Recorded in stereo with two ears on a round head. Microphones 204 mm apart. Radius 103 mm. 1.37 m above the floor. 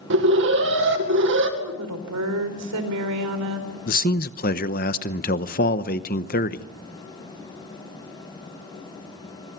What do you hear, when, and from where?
0.1 s an alarm: 60° right (ahead or behind), 2.5 m
1.6 s a woman speaking: 75° right (ahead or behind), 4 m
3.9 s a man speaking: 40° left (ahead or behind), 0.9 m